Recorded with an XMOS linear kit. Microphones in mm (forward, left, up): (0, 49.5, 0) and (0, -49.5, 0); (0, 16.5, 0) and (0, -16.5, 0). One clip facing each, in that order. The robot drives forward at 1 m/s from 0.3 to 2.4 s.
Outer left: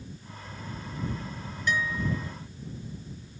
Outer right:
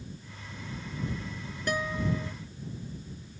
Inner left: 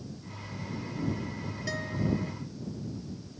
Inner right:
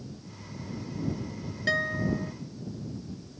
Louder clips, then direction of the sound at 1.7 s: Outer left 1 dB, inner right 5 dB; 50° right (ahead or behind).